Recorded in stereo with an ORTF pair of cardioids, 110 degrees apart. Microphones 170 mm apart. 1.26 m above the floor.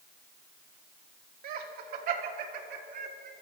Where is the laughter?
65° right, 2.5 m.